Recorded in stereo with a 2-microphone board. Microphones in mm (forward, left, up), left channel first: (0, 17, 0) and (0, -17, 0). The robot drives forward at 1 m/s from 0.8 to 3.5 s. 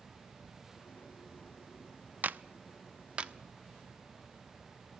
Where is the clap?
55° right (ahead or behind), 0.6 m; by 3.3 s 30° right (ahead or behind), 1.1 m.